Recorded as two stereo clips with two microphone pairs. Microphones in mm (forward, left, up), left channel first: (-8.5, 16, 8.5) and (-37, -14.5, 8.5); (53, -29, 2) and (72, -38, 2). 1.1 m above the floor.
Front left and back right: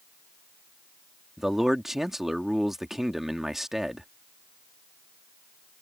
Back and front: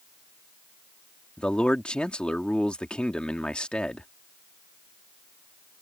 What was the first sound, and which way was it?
A man speaking, 145° left.